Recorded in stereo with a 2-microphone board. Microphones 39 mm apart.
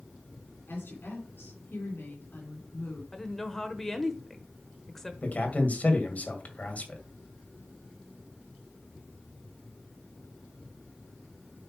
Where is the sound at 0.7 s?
70° left (ahead or behind), 3 m.